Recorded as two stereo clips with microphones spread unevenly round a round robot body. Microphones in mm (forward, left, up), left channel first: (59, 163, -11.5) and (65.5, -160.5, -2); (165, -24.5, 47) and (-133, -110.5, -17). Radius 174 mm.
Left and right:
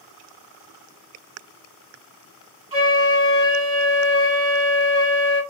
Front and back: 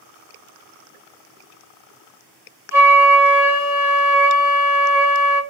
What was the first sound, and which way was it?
A flute, 135° right.